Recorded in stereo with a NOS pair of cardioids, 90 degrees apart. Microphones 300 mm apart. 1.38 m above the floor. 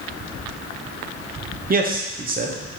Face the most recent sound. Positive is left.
turn(degrees=-30)